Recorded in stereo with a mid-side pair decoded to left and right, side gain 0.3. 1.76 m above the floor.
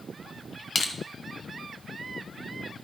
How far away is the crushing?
About 1.8 m.